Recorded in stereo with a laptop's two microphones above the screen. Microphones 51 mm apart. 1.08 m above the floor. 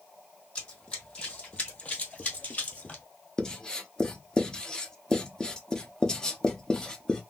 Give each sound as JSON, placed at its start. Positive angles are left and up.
{"t": 0.6, "sound": "running footsteps", "side_deg": 20, "distance_m": 1.7}
{"t": 3.4, "sound": "writing", "side_deg": 15, "distance_m": 0.7}